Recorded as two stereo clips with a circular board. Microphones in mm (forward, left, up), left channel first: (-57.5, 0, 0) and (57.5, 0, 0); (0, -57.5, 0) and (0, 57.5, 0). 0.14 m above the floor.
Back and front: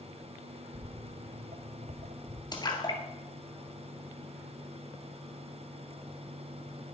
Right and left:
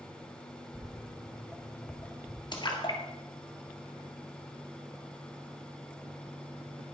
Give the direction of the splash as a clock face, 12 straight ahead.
4 o'clock.